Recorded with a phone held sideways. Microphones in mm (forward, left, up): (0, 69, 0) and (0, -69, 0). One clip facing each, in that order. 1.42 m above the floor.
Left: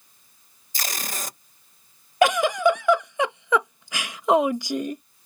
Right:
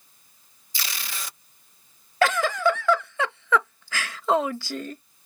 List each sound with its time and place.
0.7 s tape being pulled: 45° left (ahead or behind)
2.2 s a giggle: 15° left (ahead or behind)